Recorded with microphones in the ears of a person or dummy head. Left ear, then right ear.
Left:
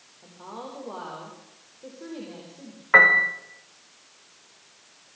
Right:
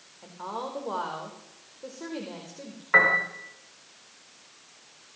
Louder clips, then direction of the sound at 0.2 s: Right 5 dB; 75° right (ahead or behind).